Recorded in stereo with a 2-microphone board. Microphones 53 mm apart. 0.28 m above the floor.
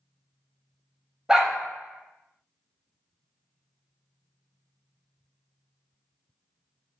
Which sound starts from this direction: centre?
A dog barking, at 1.3 s.